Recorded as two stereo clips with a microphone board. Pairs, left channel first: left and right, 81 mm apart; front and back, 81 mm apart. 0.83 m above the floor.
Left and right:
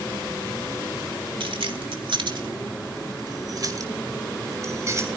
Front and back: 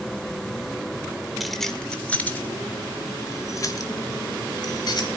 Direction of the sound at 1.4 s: 95° right.